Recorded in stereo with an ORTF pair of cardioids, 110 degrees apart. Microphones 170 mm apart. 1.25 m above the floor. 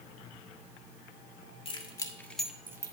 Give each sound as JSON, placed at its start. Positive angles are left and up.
{"t": 1.6, "sound": "keys jangling", "azimuth_deg": 35, "distance_m": 1.7}